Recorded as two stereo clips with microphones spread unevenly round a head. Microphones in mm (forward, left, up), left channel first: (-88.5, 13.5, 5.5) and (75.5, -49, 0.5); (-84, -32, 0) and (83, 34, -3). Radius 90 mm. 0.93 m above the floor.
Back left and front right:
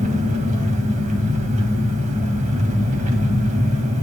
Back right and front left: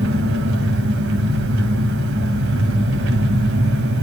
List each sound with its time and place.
0.0 s an engine running: 30° left, 2.5 m